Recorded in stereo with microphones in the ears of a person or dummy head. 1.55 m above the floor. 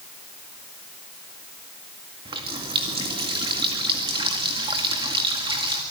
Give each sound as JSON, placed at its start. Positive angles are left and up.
{"t": 2.2, "sound": "a running tap", "side_deg": -25, "distance_m": 2.0}